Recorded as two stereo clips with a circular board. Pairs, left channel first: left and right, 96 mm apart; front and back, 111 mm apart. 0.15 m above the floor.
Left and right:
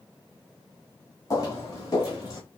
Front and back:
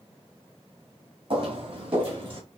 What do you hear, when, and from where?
1.3 s footsteps: 140° left, 2 m; by 2.4 s 135° left, 3.5 m